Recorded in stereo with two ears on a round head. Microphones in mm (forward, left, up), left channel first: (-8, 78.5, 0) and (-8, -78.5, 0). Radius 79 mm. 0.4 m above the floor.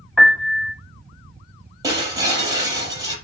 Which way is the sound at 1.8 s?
20° right (ahead or behind).